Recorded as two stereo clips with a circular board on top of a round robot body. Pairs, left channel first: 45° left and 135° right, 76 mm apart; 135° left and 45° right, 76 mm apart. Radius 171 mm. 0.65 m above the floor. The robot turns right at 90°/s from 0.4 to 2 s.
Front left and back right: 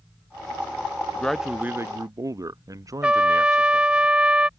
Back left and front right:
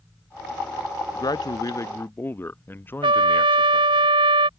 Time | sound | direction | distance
1.1 | a man speaking | 115° left | ?
3.0 | a trumpet | 60° right | ?